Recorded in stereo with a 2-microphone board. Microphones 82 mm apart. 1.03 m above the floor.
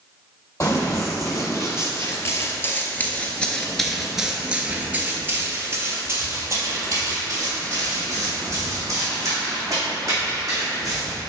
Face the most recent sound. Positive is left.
turn(degrees=-45)  # may be behind; listen again after turning